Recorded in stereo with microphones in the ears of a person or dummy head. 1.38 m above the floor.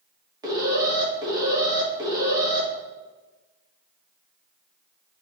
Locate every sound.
0.4 s an alarm: 20° right (ahead or behind), 3 m